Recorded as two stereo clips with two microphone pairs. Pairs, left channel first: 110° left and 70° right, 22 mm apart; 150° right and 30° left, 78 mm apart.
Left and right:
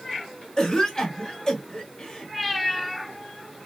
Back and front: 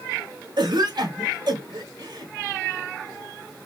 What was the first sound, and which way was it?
A cough, 55° left.